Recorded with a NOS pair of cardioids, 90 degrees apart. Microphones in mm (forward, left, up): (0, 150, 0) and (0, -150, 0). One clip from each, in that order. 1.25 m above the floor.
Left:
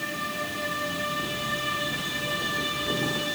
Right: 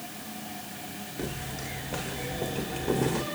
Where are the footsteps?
45° right, 4 m.